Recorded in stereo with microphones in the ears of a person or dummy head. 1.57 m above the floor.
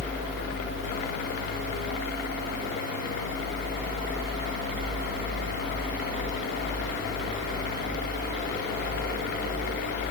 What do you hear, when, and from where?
Only background noise.